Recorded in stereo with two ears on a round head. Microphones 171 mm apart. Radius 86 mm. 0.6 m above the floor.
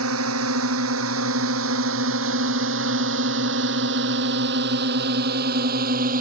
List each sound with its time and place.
0.0 s a drone: 80° right; by 6.2 s 45° right (ahead or behind)